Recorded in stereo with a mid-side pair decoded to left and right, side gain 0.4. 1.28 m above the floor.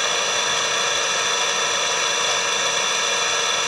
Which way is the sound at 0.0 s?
5° right.